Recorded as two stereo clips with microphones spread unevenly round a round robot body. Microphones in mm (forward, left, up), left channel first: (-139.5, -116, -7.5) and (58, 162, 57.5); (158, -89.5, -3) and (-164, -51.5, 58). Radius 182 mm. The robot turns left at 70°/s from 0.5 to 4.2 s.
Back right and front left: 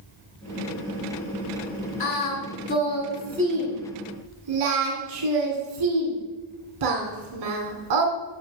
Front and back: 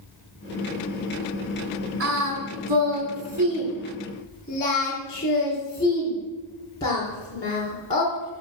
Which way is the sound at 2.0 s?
135° right.